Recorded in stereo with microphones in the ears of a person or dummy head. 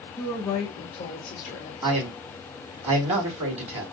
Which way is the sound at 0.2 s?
20° left (ahead or behind).